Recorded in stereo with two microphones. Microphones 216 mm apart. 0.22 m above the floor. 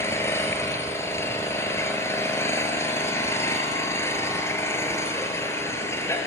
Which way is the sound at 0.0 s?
10° left (ahead or behind).